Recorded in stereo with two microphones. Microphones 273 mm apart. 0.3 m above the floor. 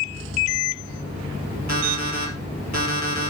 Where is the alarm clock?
80° right, 3 m.